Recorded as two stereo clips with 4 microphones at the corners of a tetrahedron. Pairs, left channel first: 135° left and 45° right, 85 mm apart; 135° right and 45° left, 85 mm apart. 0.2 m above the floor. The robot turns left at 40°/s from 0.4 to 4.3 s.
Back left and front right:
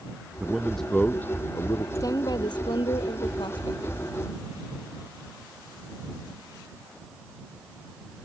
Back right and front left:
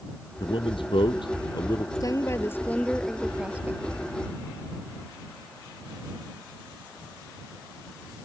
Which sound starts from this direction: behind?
A woman speaking, at 1.9 s.